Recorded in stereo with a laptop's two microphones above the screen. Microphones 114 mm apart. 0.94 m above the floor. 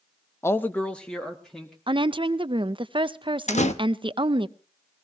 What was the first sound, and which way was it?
A man speaking, 20° left (ahead or behind).